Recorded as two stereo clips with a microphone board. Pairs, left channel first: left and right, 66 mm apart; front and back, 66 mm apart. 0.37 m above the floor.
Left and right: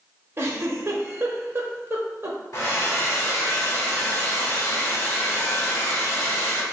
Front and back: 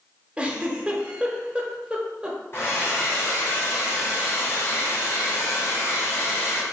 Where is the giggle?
115° right, 0.8 m.